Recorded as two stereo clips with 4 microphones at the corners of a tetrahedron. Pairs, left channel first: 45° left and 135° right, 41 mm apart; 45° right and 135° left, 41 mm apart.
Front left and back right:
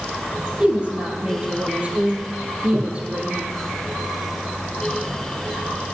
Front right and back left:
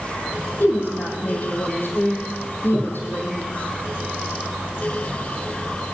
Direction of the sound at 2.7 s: 105° right.